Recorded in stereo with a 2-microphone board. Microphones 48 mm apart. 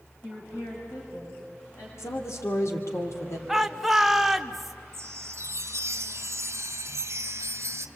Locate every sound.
0.2 s a woman speaking: 65° left (ahead or behind), 4.5 m; by 1.9 s 60° left (ahead or behind), 6.5 m
2.0 s a woman speaking: 75° left (ahead or behind), 2.5 m
3.5 s a shout: 5° right (ahead or behind), 1.1 m
4.9 s a chime: 75° right (ahead or behind), 1.8 m